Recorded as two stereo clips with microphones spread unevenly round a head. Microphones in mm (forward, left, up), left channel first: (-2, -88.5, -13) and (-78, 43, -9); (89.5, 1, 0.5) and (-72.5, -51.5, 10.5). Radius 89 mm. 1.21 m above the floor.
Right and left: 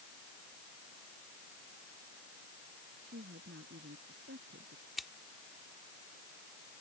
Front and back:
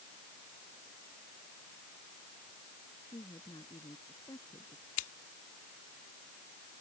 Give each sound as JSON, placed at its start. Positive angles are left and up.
{"t": 3.0, "sound": "a woman speaking", "azimuth_deg": 95}
{"t": 5.0, "sound": "scissors", "azimuth_deg": 30}